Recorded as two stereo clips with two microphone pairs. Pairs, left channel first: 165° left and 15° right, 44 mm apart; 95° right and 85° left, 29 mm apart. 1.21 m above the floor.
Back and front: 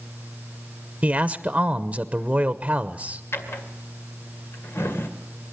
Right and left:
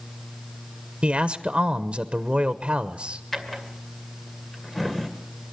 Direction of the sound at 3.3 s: 175° right.